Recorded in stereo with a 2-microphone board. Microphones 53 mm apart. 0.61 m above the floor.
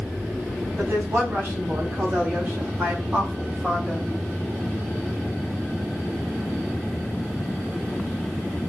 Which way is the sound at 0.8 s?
55° right (ahead or behind).